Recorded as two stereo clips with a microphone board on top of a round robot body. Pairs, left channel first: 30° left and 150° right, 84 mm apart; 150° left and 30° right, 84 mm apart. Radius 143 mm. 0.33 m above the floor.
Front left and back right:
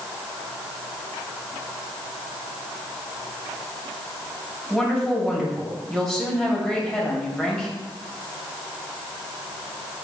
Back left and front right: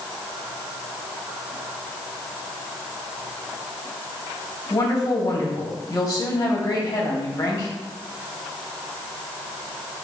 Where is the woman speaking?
110° left, 2.5 m.